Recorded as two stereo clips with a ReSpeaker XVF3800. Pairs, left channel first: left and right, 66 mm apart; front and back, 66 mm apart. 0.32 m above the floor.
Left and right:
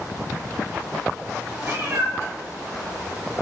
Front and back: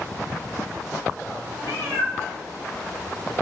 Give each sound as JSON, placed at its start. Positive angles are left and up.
{"t": 1.6, "sound": "a cat meowing", "azimuth_deg": -40, "distance_m": 2.0}